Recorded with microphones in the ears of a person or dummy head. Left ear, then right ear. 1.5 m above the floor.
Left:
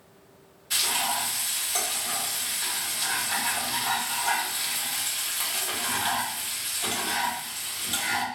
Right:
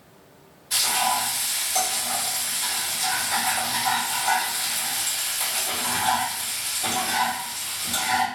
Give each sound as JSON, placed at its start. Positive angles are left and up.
{"t": 0.7, "sound": "frying", "side_deg": 45, "distance_m": 1.3}